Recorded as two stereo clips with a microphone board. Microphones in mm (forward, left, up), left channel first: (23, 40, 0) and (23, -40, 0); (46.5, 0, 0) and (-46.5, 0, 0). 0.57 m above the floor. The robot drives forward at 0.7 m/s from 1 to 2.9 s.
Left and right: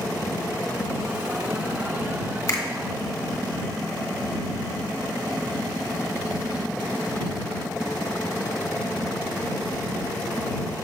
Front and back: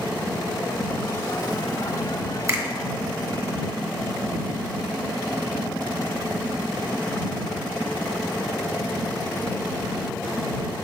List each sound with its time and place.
2.5 s a finger snap: 130° left, 1.3 m; by 2.6 s 135° left, 1.4 m